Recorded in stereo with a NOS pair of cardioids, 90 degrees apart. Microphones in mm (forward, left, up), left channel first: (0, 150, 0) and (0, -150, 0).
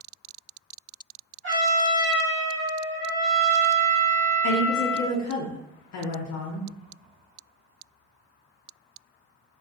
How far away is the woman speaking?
About 0.5 m.